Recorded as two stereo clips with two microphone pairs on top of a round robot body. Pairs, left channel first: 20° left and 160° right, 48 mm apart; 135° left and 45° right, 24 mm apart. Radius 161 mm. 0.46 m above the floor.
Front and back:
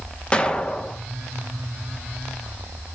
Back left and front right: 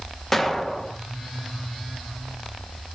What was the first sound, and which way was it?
An explosion, 70° left.